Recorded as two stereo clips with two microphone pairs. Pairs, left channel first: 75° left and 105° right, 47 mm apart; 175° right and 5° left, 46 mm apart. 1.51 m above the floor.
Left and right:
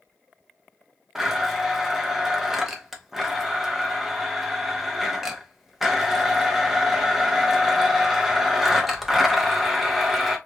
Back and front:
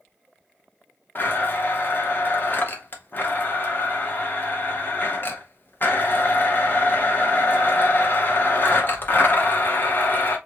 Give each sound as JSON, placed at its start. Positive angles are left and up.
{"t": 1.1, "sound": "a blender", "azimuth_deg": 175, "distance_m": 0.9}